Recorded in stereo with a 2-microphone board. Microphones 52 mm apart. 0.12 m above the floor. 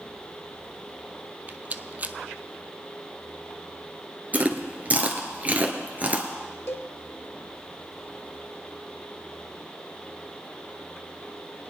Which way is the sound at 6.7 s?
55° left (ahead or behind).